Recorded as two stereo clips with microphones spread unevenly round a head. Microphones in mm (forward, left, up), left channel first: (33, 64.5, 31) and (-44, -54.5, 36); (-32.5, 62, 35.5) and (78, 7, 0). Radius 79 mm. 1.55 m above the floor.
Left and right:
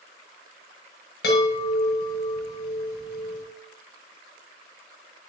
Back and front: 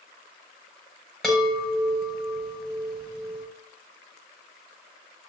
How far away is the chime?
About 6 m.